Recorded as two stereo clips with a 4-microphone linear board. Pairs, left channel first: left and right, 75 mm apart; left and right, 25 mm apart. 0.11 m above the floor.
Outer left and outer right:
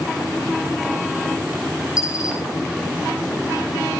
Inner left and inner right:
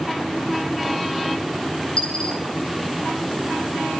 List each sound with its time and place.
2.0 s a dropped coin: 50° left (ahead or behind), 5 m